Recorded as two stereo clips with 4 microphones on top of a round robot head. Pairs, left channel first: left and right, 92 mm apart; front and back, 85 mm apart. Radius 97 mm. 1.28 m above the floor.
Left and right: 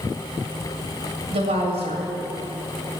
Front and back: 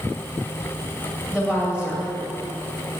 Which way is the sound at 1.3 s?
100° right.